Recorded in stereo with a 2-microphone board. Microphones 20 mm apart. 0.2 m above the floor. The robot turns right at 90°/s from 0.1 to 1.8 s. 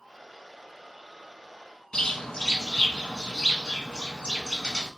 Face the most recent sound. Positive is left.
turn(degrees=40)  # may be behind; listen again after turning